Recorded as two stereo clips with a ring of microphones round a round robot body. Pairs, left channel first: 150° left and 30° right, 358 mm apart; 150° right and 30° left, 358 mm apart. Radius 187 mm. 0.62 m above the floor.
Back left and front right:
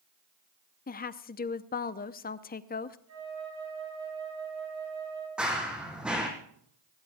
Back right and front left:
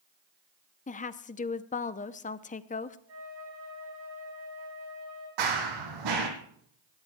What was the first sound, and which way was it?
A woman speaking, 170° left.